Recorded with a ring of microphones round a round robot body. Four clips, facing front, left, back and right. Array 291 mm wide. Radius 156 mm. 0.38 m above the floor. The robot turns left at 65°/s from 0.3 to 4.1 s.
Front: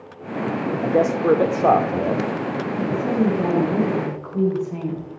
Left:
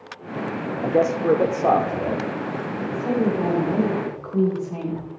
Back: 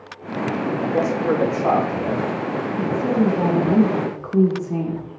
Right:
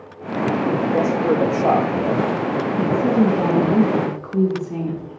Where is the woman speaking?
80° right, 6 m; by 5.1 s 165° right, 6 m.